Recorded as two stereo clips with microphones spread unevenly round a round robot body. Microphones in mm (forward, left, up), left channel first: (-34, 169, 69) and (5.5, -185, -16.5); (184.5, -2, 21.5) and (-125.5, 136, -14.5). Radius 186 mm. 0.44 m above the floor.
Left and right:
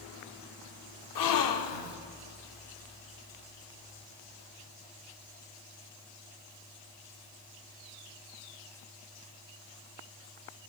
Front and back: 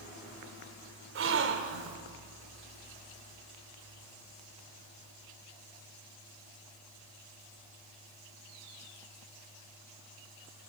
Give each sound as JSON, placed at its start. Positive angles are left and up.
{"t": 1.1, "sound": "a gasp", "azimuth_deg": 125, "distance_m": 1.1}